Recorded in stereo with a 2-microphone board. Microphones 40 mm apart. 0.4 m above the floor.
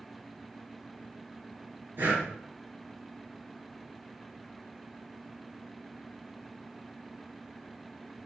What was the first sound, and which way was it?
Breathing, 60° right (ahead or behind).